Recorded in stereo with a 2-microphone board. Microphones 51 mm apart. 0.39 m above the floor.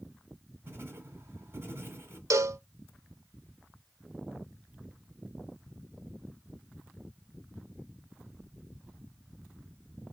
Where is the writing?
45° right (ahead or behind), 1.8 m.